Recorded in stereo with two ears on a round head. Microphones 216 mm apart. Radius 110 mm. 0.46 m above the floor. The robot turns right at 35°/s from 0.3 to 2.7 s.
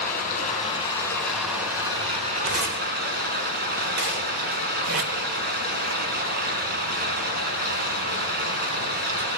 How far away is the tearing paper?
About 2 m.